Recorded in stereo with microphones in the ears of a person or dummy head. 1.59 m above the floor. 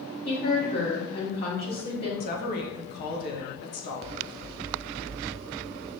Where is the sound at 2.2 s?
50° left (ahead or behind), 1.0 m.